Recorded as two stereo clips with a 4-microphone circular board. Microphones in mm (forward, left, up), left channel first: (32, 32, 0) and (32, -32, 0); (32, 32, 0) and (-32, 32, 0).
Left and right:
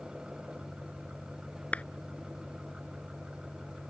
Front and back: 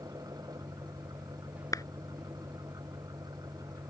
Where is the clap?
20° left.